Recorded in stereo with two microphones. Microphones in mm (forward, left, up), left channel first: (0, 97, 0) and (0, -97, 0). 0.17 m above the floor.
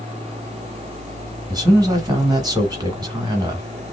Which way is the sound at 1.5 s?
20° right (ahead or behind).